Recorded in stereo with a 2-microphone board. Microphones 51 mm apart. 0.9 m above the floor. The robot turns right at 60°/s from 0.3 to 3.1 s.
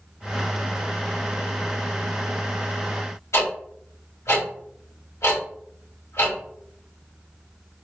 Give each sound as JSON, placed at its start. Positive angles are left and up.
{"t": 3.3, "sound": "ticking", "side_deg": 70, "distance_m": 1.8}